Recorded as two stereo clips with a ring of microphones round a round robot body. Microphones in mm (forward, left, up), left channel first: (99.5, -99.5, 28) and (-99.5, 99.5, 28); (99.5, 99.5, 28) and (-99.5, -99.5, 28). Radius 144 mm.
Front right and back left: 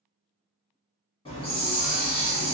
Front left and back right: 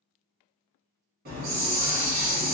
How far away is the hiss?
About 1.2 m.